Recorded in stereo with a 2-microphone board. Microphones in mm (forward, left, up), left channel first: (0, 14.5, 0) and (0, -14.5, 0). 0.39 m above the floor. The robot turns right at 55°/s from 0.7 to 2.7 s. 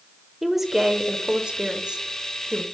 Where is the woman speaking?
155° right, 1.1 m; by 2.6 s 45° right, 1.1 m.